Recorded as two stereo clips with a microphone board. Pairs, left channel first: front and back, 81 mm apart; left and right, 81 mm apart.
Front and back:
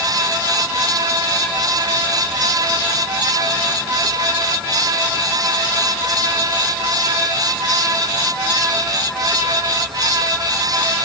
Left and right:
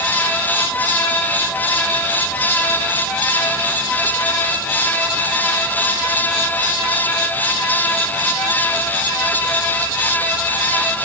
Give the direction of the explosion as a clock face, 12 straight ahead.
No explosion in this recording.